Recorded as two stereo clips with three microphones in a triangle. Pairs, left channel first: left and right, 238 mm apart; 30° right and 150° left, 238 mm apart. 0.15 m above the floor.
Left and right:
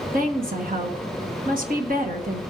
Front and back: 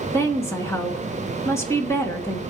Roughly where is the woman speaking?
Right.